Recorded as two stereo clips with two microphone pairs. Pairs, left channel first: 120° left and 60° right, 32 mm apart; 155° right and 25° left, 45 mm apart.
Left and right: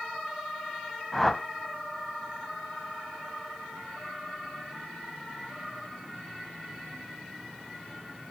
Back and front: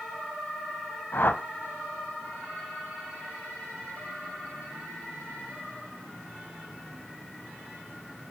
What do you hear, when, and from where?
1.1 s a whoosh: 155° right, 0.6 m